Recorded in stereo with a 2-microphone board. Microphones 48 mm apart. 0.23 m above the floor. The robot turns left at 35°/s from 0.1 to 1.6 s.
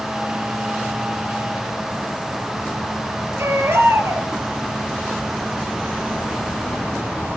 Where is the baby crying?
65° right (ahead or behind), 3.5 m.